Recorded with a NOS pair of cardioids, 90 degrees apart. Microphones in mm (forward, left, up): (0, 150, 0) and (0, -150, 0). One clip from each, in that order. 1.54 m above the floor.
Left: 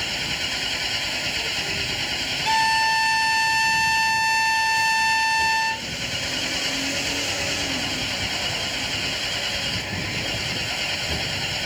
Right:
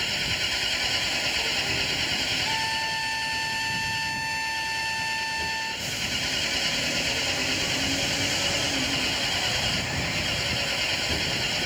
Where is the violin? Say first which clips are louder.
Left 7 dB; 35° left.